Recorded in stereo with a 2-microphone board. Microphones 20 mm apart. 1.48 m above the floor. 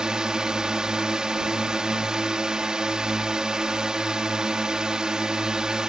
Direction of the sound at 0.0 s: 50° right (ahead or behind).